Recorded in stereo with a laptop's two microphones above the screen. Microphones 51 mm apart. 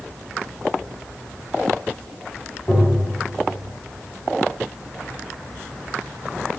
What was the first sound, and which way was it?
Tapping, 25° left (ahead or behind).